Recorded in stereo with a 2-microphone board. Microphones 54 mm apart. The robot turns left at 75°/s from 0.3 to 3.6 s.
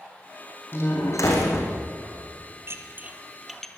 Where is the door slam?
135° left, 5.5 m; by 1.7 s 60° left, 5.5 m.